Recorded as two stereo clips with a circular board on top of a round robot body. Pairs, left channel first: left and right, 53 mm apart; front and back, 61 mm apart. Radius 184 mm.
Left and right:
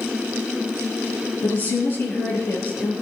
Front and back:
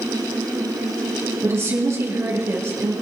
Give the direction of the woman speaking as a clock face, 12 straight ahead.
8 o'clock.